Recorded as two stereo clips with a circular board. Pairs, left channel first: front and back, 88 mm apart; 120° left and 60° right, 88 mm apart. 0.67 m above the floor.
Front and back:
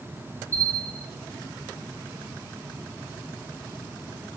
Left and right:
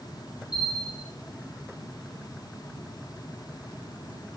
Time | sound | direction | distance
0.5 | a bell | 135° left | 1.6 m